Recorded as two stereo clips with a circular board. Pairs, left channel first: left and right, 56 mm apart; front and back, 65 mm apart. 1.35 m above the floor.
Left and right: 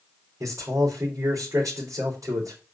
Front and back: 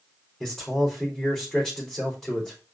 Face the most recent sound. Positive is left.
turn(degrees=-90)